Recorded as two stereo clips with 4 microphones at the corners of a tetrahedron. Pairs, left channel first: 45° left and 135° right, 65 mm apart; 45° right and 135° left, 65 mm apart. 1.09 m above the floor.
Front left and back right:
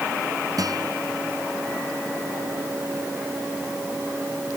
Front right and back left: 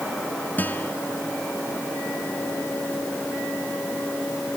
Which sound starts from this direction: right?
A guitar, at 0.6 s.